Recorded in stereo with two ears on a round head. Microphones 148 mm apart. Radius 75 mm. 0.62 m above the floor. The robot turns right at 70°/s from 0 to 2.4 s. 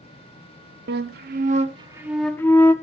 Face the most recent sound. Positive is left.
turn(degrees=15)